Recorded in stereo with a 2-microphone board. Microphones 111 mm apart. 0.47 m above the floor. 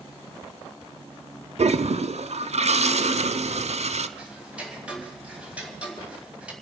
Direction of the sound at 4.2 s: 10° right (ahead or behind).